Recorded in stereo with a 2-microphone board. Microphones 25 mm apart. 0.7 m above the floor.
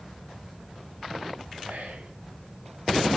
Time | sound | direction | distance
1.6 | whispering | 75° right (ahead or behind) | 4 m